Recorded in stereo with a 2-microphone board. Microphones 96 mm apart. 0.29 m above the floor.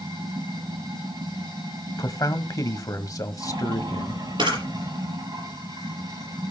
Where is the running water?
50° right (ahead or behind), 7 m.